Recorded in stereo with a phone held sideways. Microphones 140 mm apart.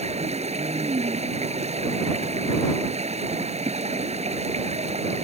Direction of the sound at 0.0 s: 50° right (ahead or behind).